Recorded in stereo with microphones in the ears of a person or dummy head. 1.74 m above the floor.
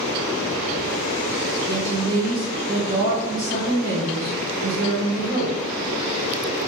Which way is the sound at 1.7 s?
20° right (ahead or behind).